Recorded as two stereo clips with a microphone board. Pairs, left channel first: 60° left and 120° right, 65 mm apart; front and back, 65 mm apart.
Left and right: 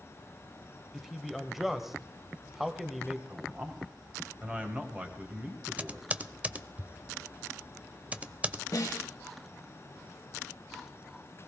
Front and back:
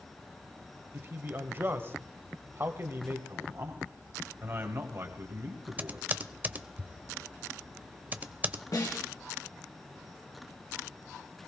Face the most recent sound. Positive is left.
turn(degrees=25)